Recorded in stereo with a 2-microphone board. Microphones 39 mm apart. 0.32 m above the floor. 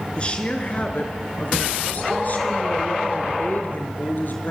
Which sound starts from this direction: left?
A woman speaking, at 0.2 s.